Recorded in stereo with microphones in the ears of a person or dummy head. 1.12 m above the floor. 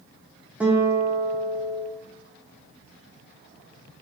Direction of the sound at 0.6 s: Centre (ahead or behind).